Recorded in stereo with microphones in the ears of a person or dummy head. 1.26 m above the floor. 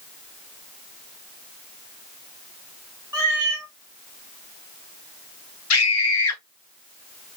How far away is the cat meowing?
About 0.8 m.